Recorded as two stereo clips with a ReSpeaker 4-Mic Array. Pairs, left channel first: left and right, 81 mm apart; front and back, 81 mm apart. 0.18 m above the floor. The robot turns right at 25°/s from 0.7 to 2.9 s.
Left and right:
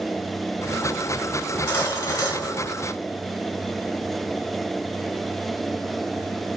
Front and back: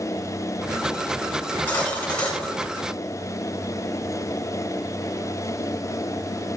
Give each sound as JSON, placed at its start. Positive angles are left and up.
{"t": 1.4, "sound": "cutlery clinking", "azimuth_deg": 50, "distance_m": 1.1}